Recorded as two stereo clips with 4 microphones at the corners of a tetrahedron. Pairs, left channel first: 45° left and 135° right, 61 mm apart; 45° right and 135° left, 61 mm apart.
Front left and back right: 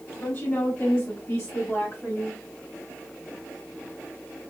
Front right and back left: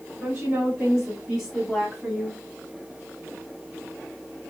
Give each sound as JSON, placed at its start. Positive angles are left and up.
{"t": 0.2, "sound": "a woman speaking", "azimuth_deg": 75, "distance_m": 1.9}